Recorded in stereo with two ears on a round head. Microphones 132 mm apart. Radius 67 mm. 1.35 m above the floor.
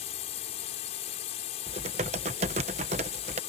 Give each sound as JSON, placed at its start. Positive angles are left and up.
{"t": 0.0, "sound": "a drone", "side_deg": 45}
{"t": 1.7, "sound": "typing on a keyboard", "side_deg": -45}